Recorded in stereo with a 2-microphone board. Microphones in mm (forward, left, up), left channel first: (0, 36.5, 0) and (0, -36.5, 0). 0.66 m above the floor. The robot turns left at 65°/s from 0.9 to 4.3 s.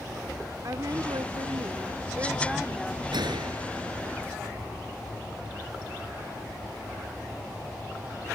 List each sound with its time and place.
0.6 s a woman speaking: 60° right; by 3.0 s 160° left
3.1 s a gunshot: 80° right; by 4.2 s 155° right